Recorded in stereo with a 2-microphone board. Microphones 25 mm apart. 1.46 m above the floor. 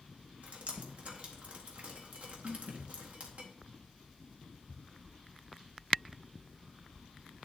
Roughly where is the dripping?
Right.